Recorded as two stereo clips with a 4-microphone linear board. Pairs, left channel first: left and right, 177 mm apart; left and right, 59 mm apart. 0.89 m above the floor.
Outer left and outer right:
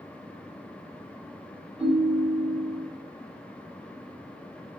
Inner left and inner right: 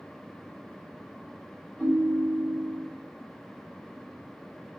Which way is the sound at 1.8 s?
Centre (ahead or behind).